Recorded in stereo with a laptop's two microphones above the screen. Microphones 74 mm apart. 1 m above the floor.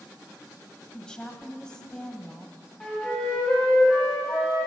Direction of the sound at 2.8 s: 15° left (ahead or behind).